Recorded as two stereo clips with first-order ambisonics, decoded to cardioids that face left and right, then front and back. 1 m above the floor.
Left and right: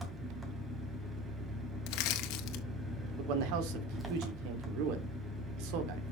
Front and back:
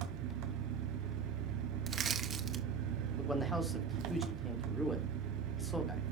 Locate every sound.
0.0 s an engine running: 170° right, 2.5 m
1.9 s crushing: 120° left, 1.6 m
3.2 s a man speaking: 85° right, 2.5 m